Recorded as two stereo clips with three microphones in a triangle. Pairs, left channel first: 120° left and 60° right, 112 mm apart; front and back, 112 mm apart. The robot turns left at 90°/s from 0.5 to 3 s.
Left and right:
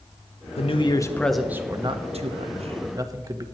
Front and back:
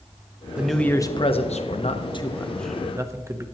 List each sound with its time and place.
0.6 s a man speaking: 100° left, 1.0 m; by 3.4 s 115° right, 1.0 m